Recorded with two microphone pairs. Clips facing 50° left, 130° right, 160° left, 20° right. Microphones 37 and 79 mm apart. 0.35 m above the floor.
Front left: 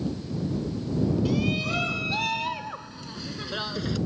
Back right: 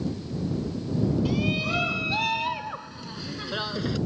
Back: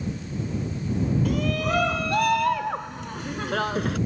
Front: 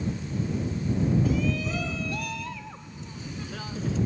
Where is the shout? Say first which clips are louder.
Even, back 2 dB; 150° left; by 4.0 s 145° left.